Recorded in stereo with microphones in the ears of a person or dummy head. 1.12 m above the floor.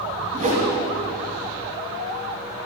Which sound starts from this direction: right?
A whoosh, at 0.3 s.